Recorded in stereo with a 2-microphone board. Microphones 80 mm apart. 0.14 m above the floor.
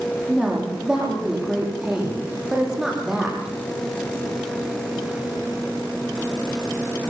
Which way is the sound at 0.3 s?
10° right (ahead or behind).